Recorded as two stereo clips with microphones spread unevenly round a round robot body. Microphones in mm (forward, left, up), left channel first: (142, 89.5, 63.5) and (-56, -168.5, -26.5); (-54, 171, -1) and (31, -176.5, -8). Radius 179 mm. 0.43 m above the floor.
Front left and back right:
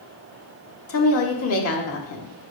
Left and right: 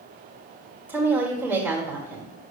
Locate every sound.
0.9 s a woman speaking: 5° left, 1.4 m